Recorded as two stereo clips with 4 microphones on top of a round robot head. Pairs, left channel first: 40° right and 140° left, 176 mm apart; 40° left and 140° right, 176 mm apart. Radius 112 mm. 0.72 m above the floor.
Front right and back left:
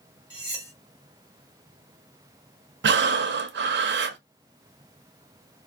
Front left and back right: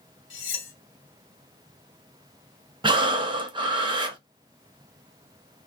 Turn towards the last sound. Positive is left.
turn(degrees=155)